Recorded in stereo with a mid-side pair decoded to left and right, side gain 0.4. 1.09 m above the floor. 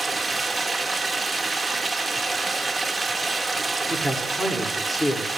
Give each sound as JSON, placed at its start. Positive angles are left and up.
{"t": 0.0, "sound": "running water", "azimuth_deg": -20, "distance_m": 2.5}
{"t": 3.9, "sound": "a man speaking", "azimuth_deg": 10, "distance_m": 3.5}